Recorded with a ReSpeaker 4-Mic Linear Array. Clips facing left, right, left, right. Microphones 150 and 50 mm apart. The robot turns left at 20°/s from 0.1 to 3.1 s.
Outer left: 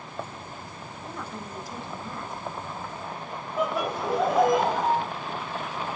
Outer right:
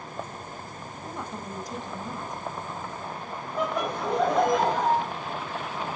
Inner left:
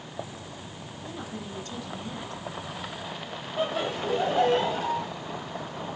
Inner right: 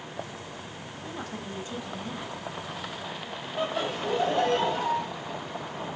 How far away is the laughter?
About 1.2 m.